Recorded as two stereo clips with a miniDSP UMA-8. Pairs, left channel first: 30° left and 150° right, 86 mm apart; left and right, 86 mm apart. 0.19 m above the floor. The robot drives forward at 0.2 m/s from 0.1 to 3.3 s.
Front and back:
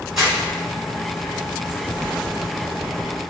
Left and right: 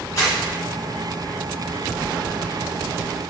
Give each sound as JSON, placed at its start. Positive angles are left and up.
{"t": 0.2, "sound": "crumpling", "azimuth_deg": 125, "distance_m": 1.6}